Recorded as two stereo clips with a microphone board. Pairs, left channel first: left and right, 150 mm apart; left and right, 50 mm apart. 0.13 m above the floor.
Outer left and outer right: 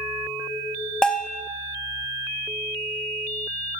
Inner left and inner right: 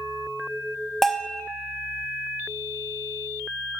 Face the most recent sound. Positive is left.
turn(degrees=5)  # may be behind; listen again after turning